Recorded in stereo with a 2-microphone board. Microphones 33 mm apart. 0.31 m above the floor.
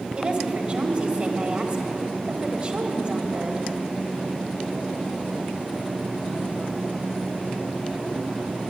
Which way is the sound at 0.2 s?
35° right (ahead or behind).